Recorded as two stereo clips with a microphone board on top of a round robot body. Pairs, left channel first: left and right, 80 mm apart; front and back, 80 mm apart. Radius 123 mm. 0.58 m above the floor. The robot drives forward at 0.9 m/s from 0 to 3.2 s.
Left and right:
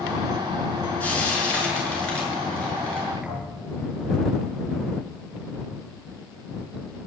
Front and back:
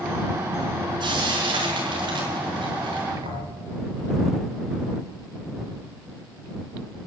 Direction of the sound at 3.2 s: 170° right.